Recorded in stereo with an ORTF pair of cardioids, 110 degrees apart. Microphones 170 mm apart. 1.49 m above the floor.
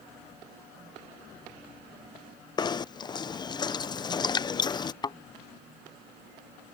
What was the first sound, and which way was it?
Knocking, 25° left.